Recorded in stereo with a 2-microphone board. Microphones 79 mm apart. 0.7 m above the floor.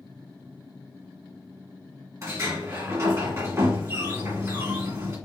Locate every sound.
2.2 s a sliding door: 40° right (ahead or behind), 2.0 m